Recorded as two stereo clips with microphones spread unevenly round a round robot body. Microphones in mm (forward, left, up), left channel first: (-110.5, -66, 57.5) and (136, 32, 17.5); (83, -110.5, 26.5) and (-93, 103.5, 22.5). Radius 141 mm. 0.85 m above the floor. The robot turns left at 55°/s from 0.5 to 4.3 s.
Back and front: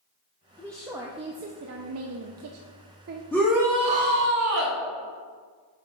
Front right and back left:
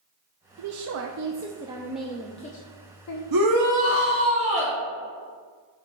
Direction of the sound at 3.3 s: 115° left.